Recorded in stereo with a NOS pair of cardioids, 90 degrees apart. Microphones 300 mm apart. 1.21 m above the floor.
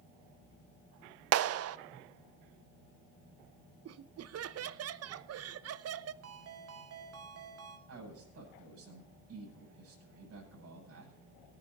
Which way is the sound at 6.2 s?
50° right.